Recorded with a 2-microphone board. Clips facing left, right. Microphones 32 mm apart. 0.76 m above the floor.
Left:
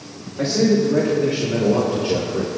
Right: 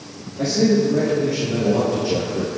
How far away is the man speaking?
About 3.5 m.